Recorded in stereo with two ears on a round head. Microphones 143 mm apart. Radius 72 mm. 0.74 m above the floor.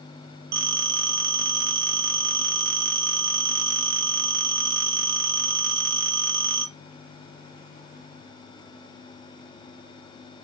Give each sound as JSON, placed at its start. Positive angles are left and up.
{"t": 0.5, "sound": "a phone ringing", "side_deg": -65, "distance_m": 0.5}